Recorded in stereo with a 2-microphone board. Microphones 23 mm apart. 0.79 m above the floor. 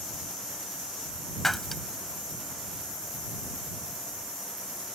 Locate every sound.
1.4 s breaking glass: 5° left (ahead or behind)